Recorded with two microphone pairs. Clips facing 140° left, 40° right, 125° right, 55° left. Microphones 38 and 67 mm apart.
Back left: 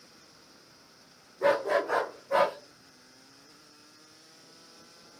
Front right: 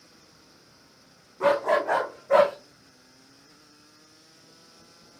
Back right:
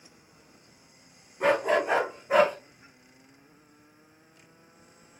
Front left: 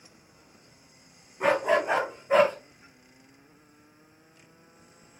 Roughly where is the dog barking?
Ahead right.